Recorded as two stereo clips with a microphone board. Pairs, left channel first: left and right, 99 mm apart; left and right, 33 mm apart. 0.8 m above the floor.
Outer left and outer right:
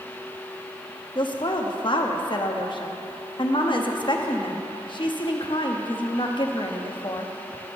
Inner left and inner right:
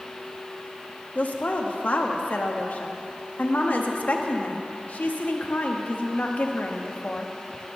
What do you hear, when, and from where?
1.1 s a woman speaking: 55° left (ahead or behind), 0.9 m